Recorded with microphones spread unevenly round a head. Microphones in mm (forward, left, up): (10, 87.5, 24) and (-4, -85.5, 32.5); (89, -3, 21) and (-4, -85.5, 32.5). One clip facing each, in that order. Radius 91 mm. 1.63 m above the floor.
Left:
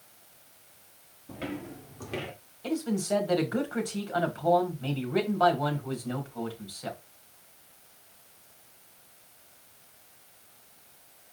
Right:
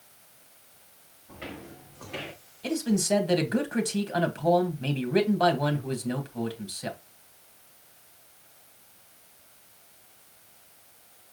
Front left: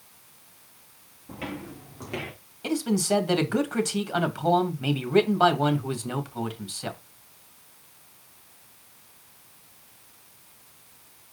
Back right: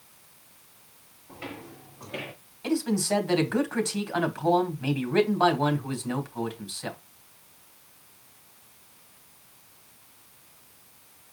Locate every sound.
1.3 s footsteps: 45° left, 5.5 m; by 2.3 s 60° left, 4.5 m
2.6 s a man speaking: 30° right, 2.5 m